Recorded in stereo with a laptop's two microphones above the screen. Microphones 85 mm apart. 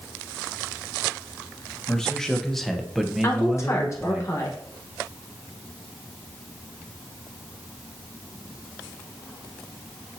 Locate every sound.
1.9 s a man speaking: 10° left (ahead or behind), 1.2 m; by 4.2 s 15° right (ahead or behind), 0.9 m
3.2 s a woman speaking: 35° left (ahead or behind), 1.1 m